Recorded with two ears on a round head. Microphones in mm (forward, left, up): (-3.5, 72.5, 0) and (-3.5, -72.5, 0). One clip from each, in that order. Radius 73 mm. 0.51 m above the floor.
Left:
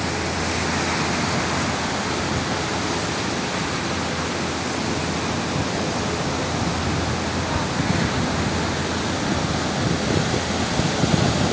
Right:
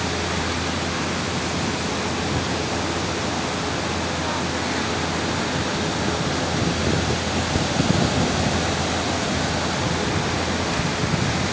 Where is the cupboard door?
No cupboard door in this recording.